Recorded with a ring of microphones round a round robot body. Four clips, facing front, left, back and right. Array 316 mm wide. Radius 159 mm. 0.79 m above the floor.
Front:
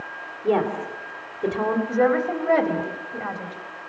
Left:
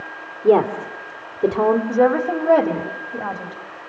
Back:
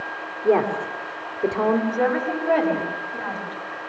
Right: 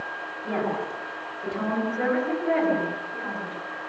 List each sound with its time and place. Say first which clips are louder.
0.4 s a woman speaking: left 12 dB, back 2 dB; 95° left, 2.5 m
1.9 s a woman speaking: left 8 dB, front 2 dB; 80° left, 3.5 m